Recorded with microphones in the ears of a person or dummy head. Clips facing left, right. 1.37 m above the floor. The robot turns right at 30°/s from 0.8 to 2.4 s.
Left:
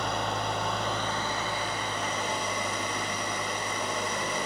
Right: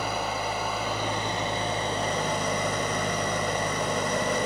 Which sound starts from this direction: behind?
An engine running, at 0.0 s.